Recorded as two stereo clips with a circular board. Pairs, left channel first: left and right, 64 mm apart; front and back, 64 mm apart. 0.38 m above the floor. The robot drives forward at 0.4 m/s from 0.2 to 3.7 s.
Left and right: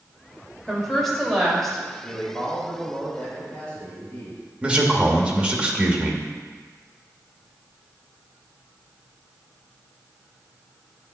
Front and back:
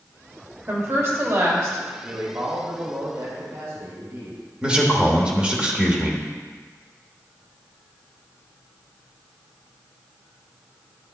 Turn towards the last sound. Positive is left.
turn(degrees=-130)